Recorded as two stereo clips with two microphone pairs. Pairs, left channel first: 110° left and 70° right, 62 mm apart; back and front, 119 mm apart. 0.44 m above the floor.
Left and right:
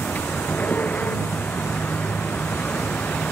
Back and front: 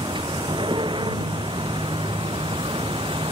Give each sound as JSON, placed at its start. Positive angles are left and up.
{"t": 0.0, "sound": "a vehicle", "azimuth_deg": 45}